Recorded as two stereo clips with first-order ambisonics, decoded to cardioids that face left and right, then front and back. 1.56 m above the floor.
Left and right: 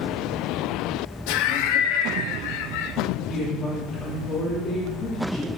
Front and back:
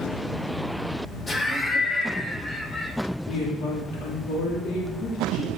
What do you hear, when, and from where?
1.3 s laughter: 80° left, 0.9 m
3.3 s a woman speaking: 20° left, 3.5 m